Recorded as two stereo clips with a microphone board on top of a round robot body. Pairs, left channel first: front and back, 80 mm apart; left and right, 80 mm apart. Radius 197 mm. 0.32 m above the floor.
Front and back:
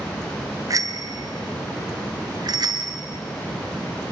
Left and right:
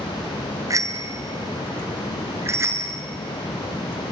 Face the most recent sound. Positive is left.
turn(degrees=-150)